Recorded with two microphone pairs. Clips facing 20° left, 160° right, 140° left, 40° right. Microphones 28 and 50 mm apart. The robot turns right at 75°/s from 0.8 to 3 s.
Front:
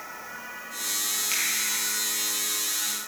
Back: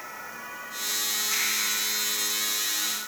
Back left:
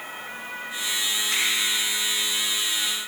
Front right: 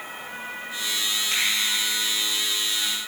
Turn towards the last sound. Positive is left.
turn(degrees=110)